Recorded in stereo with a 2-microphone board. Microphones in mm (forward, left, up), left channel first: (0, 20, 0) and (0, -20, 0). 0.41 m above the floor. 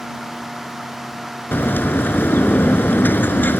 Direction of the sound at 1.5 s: 60° left (ahead or behind).